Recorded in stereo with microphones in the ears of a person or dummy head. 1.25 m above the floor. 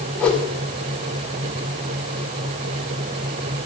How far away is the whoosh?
About 2.0 m.